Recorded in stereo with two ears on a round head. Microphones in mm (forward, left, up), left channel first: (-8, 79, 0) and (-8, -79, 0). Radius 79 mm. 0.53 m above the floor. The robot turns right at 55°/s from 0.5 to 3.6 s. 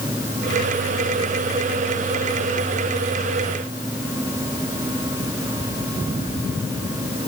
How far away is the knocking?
I don't hear knocking.